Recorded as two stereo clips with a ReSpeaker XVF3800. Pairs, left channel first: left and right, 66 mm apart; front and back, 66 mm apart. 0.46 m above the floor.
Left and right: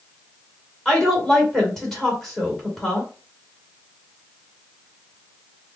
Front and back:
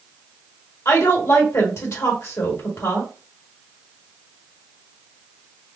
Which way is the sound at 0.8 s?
5° left.